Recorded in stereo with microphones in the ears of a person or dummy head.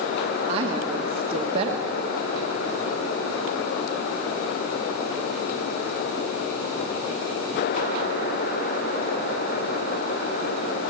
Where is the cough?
I don't hear a cough.